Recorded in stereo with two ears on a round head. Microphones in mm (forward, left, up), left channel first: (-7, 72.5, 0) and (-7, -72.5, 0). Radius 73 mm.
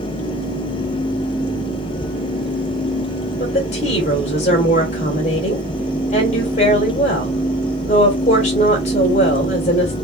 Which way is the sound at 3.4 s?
45° left (ahead or behind).